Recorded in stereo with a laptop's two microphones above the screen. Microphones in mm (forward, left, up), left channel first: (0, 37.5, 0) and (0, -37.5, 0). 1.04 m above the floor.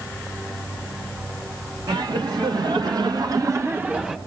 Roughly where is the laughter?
Right.